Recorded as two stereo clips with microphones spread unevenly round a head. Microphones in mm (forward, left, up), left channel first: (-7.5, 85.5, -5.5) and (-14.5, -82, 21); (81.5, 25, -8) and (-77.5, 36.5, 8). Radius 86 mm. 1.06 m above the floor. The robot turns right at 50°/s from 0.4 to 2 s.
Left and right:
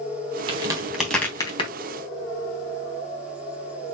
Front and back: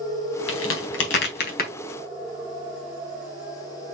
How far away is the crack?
About 3.5 m.